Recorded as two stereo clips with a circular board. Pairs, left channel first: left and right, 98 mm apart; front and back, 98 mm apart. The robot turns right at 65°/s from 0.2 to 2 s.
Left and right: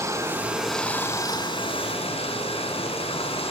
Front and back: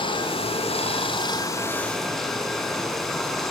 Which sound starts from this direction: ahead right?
Running water, at 0.0 s.